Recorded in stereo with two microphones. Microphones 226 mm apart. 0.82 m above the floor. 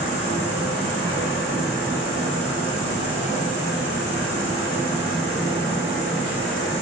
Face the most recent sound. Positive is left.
turn(degrees=-10)  # may be behind; listen again after turning